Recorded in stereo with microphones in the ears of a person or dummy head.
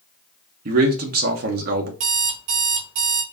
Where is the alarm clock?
60° right (ahead or behind), 1.3 m.